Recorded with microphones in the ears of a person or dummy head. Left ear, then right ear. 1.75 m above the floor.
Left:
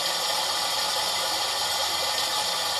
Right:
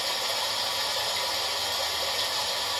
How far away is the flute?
I don't hear a flute.